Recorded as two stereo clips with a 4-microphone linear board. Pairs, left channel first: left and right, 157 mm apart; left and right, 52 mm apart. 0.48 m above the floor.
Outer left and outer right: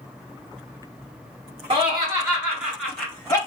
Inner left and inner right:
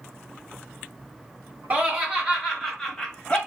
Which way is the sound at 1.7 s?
35° right (ahead or behind).